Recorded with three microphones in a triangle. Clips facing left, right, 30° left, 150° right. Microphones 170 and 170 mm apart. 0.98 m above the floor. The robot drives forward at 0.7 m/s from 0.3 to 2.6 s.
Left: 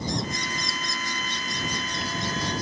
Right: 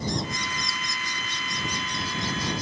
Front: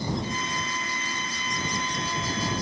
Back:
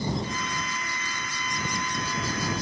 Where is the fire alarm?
No fire alarm in this recording.